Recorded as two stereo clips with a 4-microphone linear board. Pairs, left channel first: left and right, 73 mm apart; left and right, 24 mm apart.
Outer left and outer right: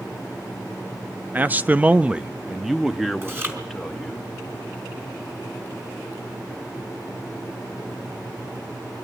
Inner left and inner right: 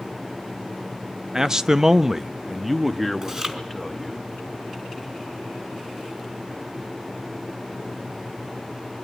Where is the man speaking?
25° right (ahead or behind), 0.6 m; by 4.2 s 5° left (ahead or behind), 1.7 m.